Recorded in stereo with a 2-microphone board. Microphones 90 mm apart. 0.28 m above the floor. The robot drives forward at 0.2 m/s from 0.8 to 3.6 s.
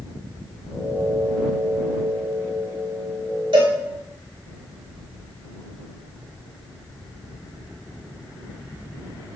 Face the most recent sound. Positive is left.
turn(degrees=-85)